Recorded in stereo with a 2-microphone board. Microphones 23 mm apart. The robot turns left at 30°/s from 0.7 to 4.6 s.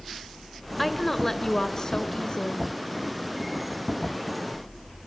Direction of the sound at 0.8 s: 170° left.